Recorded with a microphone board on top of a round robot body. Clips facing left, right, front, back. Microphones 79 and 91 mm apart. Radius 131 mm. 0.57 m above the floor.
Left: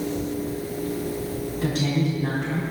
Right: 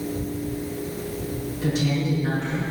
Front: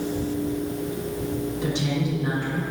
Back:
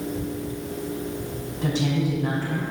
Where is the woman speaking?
135° left, 4.5 m.